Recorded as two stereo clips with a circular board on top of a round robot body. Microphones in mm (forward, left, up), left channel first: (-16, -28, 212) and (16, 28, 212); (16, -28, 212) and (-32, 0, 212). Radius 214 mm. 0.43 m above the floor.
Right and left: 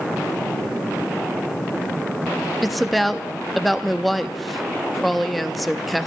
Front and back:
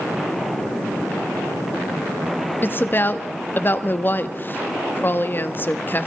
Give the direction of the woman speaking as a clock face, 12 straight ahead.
1 o'clock.